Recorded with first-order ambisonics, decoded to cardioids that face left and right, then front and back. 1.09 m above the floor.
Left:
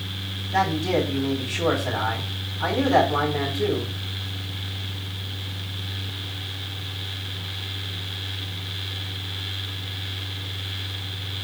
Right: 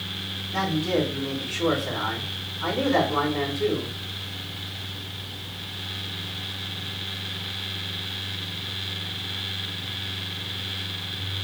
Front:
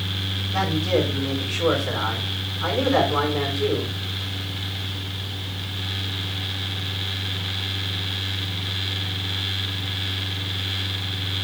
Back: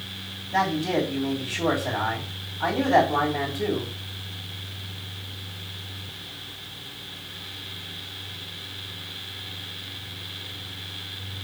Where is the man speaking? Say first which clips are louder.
Left 3 dB, even; 145° left, 3 m.